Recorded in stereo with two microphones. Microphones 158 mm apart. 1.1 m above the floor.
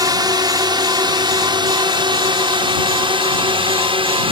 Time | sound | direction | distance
0.0 | a drone | 25° right (ahead or behind) | ?